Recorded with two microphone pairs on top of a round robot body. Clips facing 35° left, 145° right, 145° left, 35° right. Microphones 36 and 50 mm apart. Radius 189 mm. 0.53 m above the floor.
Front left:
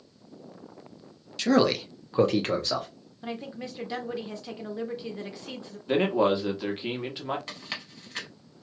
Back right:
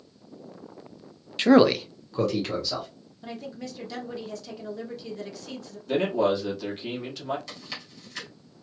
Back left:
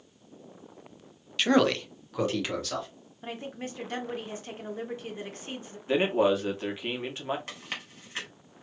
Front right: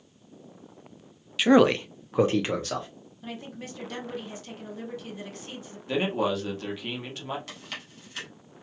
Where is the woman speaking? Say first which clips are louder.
Front left 1 dB, back left 2 dB; 90° left, 1.3 m.